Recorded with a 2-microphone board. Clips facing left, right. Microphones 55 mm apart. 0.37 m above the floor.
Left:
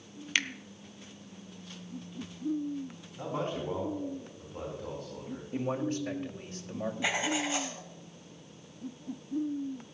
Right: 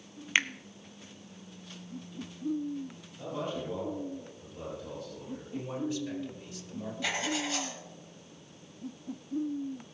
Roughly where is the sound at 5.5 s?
Left.